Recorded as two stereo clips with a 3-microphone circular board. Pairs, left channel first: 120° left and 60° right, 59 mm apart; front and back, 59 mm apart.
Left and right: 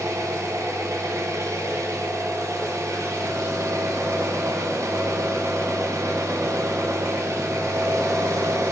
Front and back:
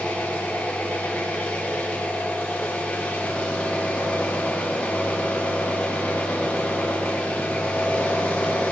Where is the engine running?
65° right, 1.8 m.